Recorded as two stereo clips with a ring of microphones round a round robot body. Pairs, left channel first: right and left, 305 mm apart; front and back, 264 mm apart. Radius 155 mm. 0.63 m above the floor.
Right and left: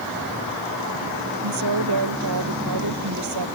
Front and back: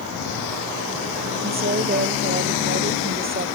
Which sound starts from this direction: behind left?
A woman speaking, at 1.4 s.